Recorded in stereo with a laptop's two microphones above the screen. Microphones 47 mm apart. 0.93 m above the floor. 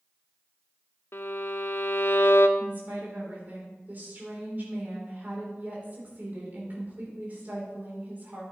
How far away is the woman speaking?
About 2.5 m.